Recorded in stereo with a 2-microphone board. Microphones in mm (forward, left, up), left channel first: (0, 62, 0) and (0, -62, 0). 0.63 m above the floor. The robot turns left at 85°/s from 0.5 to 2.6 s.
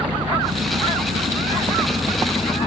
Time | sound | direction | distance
0.0 | an engine running | 40° right | ?